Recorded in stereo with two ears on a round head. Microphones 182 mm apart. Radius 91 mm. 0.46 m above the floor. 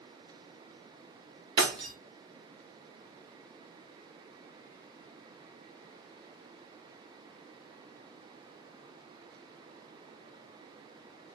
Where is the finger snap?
No finger snap in this recording.